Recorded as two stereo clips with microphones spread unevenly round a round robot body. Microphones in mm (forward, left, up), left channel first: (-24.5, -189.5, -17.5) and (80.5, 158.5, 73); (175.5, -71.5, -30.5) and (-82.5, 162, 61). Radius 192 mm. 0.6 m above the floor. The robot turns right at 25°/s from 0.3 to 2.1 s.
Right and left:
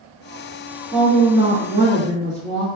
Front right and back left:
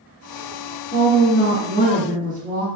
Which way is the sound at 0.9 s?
35° right.